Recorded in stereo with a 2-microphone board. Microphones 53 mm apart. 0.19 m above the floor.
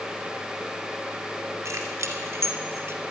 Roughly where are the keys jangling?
Right.